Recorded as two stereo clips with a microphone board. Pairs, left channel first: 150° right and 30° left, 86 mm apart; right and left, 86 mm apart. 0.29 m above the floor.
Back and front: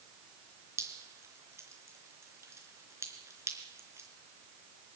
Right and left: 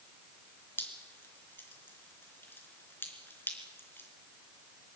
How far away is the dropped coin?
I don't hear a dropped coin.